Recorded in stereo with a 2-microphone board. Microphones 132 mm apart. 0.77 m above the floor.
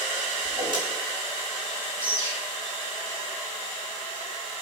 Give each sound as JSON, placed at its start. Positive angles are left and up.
{"t": 0.4, "sound": "a whoosh", "side_deg": -40, "distance_m": 4.5}
{"t": 2.0, "sound": "a bird", "side_deg": -40, "distance_m": 4.0}